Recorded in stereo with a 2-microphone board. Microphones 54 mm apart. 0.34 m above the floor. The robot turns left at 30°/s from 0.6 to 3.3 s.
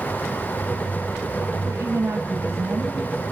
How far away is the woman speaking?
About 7.5 m.